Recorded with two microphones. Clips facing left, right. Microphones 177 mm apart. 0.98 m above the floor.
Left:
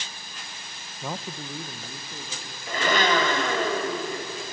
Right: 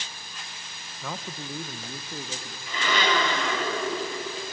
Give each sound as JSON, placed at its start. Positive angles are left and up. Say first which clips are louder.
{"t": 1.0, "sound": "a man speaking", "louder": "left 2 dB", "side_deg": 20, "distance_m": 0.6}
{"t": 2.7, "sound": "a blender", "louder": "left 3 dB", "side_deg": 50, "distance_m": 3.0}